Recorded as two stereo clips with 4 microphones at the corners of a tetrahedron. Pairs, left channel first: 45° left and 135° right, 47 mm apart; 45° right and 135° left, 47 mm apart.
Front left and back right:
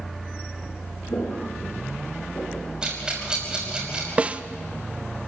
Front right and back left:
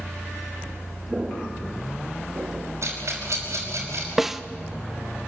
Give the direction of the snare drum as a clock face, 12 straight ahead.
5 o'clock.